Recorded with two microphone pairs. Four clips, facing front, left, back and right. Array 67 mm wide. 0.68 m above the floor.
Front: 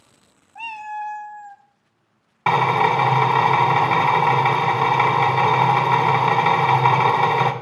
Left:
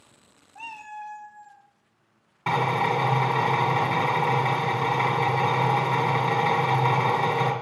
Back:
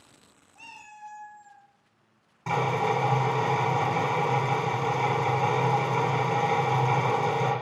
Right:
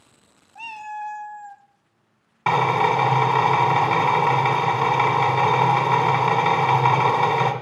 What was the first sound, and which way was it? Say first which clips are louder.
A cat meowing: right 6 dB, front 17 dB; 10° right.